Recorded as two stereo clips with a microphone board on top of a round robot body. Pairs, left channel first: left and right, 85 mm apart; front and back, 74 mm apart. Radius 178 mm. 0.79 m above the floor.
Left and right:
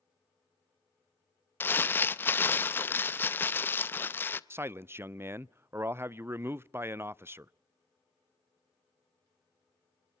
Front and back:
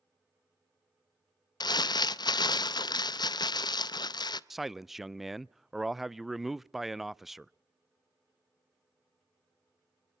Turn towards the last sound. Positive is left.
turn(degrees=-95)